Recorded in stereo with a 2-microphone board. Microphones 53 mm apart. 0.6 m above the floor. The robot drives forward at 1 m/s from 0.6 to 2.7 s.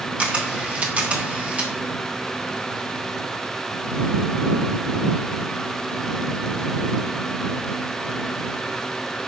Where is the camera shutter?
25° right (ahead or behind), 1.2 m; by 1.7 s 20° right (ahead or behind), 1.5 m.